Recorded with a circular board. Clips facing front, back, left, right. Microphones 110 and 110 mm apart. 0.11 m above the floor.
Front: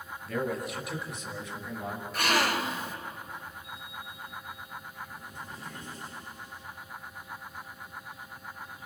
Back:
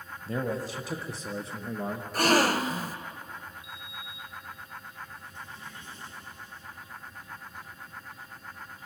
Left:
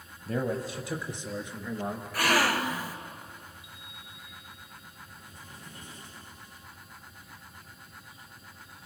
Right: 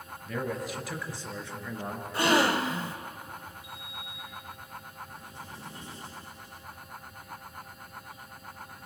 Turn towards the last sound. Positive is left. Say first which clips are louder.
# front 1 dB, right 6 dB
turn(degrees=-40)